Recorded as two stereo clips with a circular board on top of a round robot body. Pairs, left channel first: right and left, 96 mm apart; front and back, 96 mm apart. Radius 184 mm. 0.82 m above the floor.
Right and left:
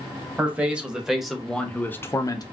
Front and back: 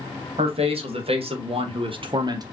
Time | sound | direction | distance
0.4 | a man speaking | 165° left | 1.6 m